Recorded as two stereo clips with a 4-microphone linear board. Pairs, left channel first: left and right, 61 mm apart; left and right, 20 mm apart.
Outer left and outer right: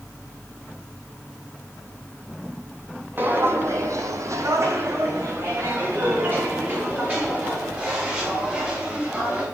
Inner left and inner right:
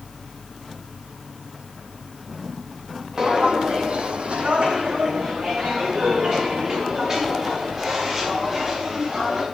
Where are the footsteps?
35° right (ahead or behind), 1.1 m; by 9.4 s 25° right (ahead or behind), 5.5 m.